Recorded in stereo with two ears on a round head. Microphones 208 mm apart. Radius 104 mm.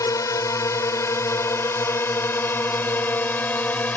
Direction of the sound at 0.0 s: 15° left (ahead or behind).